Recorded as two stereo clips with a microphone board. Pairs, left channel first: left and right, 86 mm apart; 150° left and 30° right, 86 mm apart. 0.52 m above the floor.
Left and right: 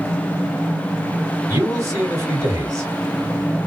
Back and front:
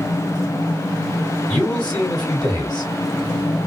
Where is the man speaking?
135° right, 2 m.